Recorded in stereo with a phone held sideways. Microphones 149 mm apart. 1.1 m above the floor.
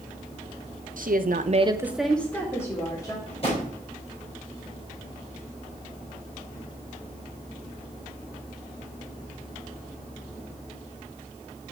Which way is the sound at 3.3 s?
40° left (ahead or behind).